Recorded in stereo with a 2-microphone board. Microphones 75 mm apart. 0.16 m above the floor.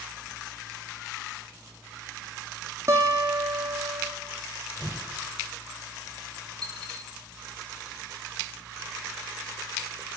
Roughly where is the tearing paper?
Centre.